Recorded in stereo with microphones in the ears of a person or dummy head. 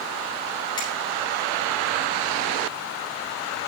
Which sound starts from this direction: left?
A finger snap, at 0.8 s.